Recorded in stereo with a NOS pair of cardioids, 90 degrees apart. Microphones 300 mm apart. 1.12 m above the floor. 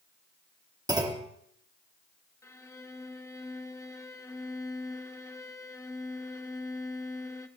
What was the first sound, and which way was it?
A clunk, 15° right.